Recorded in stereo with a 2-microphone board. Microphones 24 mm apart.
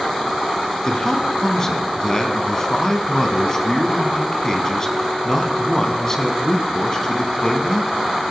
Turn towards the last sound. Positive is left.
turn(degrees=25)  # may be behind; listen again after turning